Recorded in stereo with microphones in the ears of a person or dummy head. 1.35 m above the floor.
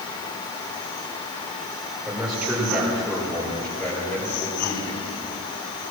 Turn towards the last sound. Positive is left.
turn(degrees=25)  # may be behind; listen again after turning